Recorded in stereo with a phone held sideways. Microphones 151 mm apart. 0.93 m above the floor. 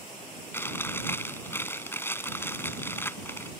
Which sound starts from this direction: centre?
Chewing, at 0.5 s.